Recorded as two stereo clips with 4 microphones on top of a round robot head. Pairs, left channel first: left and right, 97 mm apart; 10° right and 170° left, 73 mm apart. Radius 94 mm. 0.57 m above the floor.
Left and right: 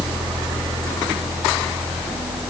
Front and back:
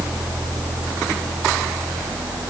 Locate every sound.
Only background noise.